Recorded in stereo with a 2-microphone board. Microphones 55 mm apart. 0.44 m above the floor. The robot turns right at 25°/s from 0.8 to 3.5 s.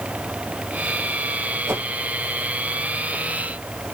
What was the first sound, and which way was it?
A whoosh, 60° right (ahead or behind).